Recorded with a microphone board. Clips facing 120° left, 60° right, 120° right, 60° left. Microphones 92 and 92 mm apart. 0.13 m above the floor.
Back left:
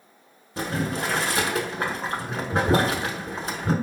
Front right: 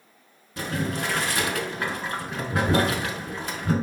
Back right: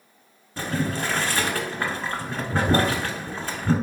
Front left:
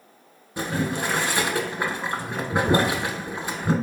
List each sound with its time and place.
0.6 s boiling: 120° left, 0.8 m